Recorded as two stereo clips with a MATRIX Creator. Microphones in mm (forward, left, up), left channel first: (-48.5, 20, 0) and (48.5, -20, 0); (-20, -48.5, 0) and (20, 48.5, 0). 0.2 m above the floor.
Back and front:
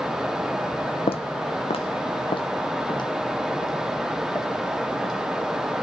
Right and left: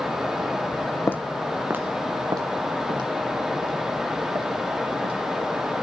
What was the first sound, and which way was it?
Footsteps, straight behind.